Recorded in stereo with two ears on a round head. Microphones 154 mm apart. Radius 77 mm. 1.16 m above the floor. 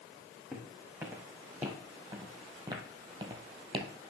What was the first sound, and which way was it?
Footsteps, 10° right (ahead or behind).